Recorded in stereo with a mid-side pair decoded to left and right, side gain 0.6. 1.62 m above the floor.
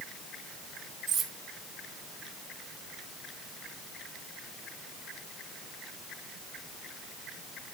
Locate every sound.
1.1 s cutlery clinking: 55° right, 3.5 m